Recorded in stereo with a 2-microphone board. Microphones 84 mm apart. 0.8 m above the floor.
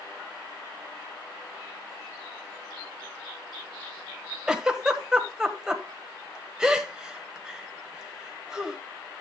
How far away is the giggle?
About 1.2 m.